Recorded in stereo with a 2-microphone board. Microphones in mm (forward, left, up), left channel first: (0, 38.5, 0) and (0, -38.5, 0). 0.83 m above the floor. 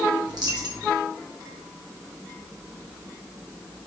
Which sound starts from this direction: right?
A dropped coin, at 0.3 s.